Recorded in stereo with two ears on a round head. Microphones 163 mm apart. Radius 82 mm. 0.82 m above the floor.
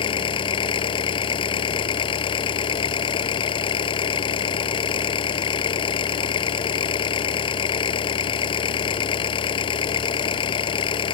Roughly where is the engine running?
Left.